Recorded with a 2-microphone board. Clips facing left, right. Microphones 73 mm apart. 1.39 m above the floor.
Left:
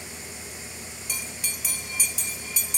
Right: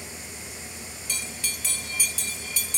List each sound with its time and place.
1.1 s a bell: 15° left (ahead or behind), 0.6 m